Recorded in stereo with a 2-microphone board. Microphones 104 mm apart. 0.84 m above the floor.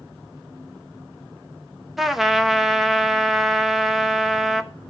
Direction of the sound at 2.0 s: 5° right (ahead or behind).